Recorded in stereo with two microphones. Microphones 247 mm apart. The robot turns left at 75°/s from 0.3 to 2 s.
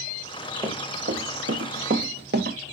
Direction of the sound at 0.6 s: 20° right (ahead or behind).